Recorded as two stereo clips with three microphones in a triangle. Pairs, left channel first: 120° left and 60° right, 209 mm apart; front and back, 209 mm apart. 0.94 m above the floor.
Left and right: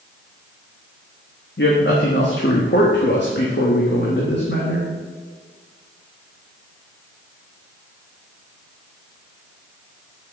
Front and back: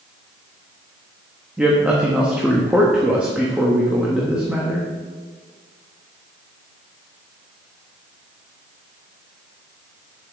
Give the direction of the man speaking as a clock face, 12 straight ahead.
9 o'clock.